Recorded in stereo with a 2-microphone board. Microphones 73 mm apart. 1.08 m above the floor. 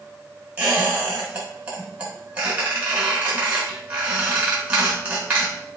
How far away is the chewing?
I don't hear chewing.